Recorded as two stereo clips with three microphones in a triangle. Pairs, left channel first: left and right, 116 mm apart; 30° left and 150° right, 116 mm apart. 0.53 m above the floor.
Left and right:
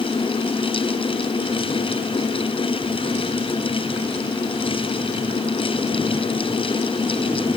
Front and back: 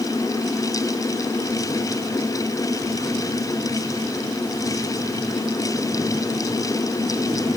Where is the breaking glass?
I don't hear breaking glass.